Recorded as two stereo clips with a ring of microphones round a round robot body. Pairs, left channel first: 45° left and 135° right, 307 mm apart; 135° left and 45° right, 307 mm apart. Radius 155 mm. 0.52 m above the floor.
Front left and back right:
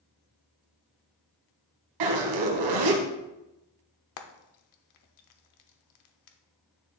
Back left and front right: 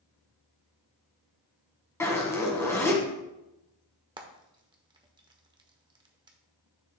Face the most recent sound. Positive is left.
turn(degrees=30)